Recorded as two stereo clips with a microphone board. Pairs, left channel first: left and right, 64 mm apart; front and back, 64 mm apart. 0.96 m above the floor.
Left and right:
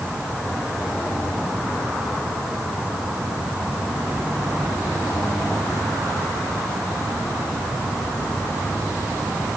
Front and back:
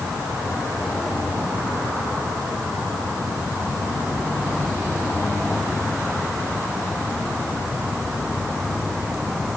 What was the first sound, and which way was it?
Only background noise.